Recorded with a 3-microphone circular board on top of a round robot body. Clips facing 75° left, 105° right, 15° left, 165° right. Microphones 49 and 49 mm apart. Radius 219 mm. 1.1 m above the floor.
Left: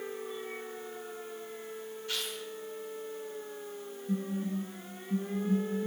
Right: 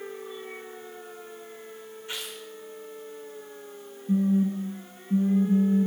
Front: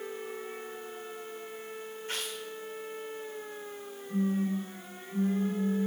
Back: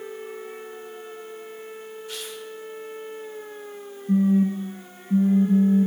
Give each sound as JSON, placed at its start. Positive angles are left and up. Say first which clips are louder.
{"t": 2.1, "sound": "tearing paper", "louder": "even, front 1 dB", "azimuth_deg": -35, "distance_m": 1.2}
{"t": 4.1, "sound": "a phone buzzing", "louder": "right 10 dB, back 10 dB", "azimuth_deg": -155, "distance_m": 1.2}